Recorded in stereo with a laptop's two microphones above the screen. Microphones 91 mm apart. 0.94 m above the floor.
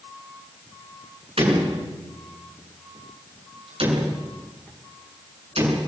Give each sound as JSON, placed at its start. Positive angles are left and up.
{"t": 1.4, "sound": "a door slam", "side_deg": -85, "distance_m": 6.5}